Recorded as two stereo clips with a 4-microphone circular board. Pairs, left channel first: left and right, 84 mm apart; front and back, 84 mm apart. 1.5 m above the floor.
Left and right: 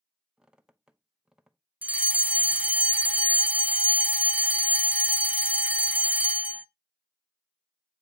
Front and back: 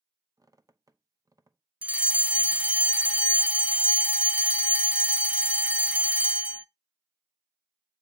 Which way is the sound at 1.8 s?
130° right.